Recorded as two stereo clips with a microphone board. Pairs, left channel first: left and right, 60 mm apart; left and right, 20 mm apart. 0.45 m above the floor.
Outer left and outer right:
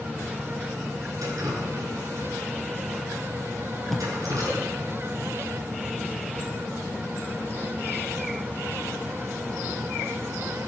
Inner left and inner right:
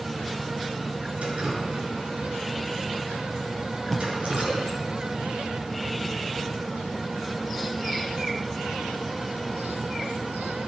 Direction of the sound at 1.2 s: 80° right.